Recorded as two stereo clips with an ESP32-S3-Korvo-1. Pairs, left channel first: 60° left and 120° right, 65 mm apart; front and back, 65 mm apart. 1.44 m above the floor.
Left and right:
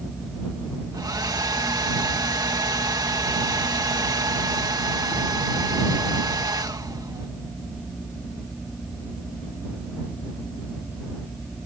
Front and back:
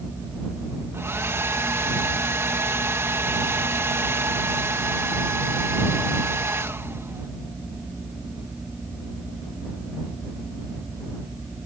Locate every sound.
0.9 s a hair dryer: 130° right